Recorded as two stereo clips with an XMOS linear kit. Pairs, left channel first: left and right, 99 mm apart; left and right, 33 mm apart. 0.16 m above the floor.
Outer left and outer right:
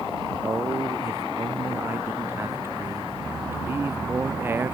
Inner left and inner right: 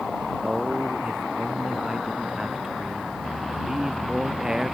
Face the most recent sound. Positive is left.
turn(degrees=-20)  # may be behind; listen again after turning